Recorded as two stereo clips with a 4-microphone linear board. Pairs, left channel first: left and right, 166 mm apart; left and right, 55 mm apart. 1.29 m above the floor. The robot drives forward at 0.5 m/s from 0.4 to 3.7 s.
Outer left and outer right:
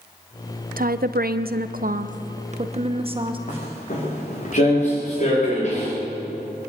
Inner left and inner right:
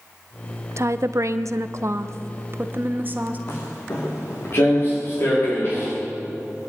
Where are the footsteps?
50° left (ahead or behind), 6.5 m; by 5.9 s 45° left (ahead or behind), 8 m.